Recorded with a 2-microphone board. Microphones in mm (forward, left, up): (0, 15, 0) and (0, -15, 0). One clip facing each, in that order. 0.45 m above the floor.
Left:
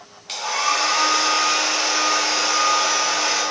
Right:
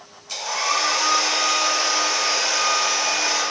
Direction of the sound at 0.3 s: 75° left (ahead or behind).